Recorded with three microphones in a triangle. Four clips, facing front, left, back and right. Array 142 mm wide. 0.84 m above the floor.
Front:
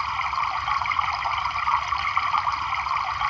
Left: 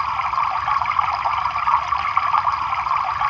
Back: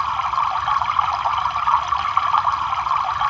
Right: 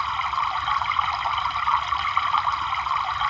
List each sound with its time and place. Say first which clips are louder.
0.0 s running water: left 4 dB, back 5 dB; 135° left, 0.9 m